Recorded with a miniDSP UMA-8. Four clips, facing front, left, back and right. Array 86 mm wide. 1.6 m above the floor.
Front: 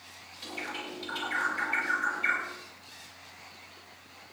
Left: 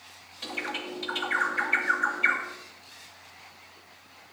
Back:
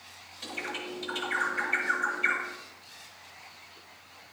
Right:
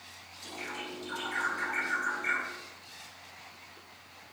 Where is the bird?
100° left, 2.5 m.